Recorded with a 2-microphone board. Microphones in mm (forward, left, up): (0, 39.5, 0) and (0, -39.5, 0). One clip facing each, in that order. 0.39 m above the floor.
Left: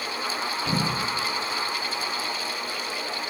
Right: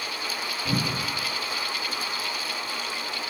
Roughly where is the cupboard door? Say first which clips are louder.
Even; right.